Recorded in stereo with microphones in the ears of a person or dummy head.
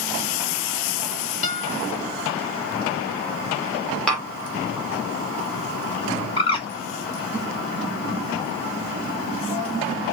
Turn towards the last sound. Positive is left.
turn(degrees=35)  # may be behind; listen again after turning